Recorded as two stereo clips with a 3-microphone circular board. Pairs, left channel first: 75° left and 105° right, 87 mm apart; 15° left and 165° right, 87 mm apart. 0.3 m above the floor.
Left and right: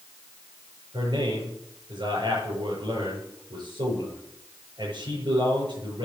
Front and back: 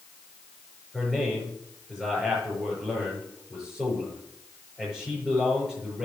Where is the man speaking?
85° right, 6 m.